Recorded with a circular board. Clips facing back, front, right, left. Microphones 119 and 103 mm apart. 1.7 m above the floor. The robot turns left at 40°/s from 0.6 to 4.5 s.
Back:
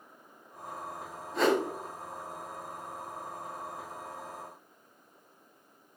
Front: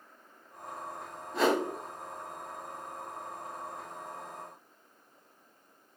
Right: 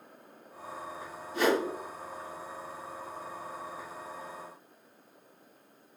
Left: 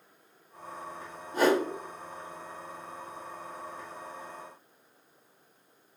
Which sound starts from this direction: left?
A whoosh, at 1.3 s.